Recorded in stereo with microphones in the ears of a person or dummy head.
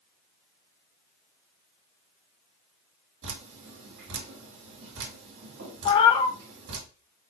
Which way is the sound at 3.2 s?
65° right (ahead or behind).